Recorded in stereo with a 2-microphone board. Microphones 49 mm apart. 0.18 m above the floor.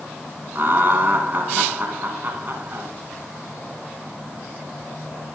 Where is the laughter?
45° right (ahead or behind), 2.0 m.